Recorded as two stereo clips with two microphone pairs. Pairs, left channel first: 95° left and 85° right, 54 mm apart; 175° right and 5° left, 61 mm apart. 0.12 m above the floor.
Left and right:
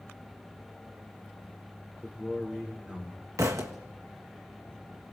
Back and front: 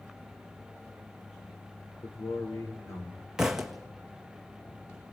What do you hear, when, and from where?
2.0 s a man speaking: 160° right, 7.5 m
3.4 s a thud: 75° right, 1.6 m